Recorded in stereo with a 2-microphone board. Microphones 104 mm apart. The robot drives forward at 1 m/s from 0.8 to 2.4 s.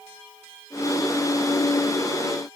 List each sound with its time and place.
Only background noise.